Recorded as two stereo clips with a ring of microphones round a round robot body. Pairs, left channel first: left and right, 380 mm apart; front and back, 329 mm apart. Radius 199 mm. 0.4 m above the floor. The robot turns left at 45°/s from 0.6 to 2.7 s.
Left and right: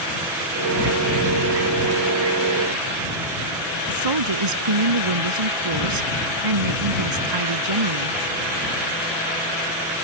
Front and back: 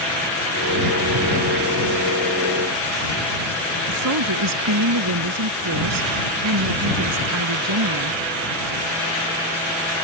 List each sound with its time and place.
3.9 s a woman speaking: 130° right